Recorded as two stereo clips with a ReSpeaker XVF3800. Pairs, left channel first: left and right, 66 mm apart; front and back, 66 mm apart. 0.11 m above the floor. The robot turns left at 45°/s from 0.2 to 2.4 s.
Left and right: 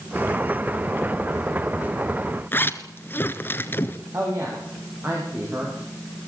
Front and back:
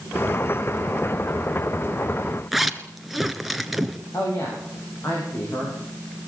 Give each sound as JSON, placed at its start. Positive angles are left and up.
{"t": 2.5, "sound": "a zipper", "azimuth_deg": 95, "distance_m": 1.3}
{"t": 4.1, "sound": "a woman speaking", "azimuth_deg": -40, "distance_m": 9.0}